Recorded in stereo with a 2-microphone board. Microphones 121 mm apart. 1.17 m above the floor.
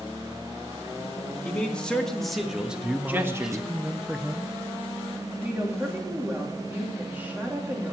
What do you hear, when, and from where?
1.4 s a man speaking: 10° left (ahead or behind), 1.9 m; by 3.6 s 30° right (ahead or behind), 1.2 m
2.8 s a man speaking: 5° right (ahead or behind), 0.5 m
5.4 s a woman speaking: 15° right (ahead or behind), 2.5 m